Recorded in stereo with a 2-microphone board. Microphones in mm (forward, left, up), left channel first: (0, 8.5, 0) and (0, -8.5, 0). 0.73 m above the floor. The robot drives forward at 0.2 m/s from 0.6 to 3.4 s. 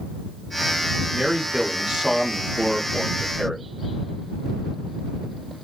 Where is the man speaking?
55° right (ahead or behind), 0.8 m; by 3.7 s 45° right (ahead or behind), 0.9 m.